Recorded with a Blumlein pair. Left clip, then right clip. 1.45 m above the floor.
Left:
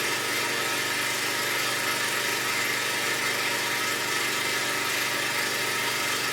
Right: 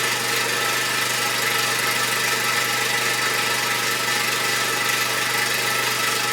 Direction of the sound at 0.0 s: 60° right.